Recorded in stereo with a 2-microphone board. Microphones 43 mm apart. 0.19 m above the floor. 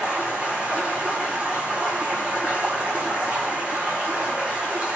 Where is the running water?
30° right (ahead or behind), 0.9 m.